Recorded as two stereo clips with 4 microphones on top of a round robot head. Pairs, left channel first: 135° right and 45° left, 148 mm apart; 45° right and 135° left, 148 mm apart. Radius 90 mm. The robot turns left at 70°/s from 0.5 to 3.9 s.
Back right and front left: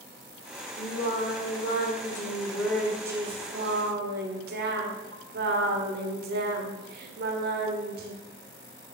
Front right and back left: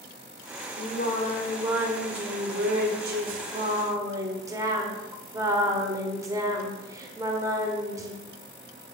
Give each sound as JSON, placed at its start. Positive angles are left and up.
{"t": 0.8, "sound": "singing", "azimuth_deg": -75, "distance_m": 1.7}